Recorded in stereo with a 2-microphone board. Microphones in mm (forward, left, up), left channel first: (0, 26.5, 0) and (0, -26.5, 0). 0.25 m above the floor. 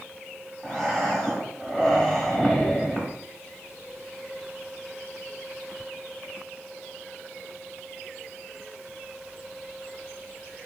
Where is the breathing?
10° left (ahead or behind), 0.8 m.